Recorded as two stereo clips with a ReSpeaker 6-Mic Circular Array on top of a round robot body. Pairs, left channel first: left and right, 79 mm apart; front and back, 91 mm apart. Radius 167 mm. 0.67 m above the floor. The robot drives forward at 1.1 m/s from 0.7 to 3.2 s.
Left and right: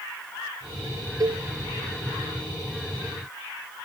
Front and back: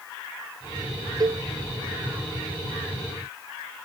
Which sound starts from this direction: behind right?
A cowbell, at 1.2 s.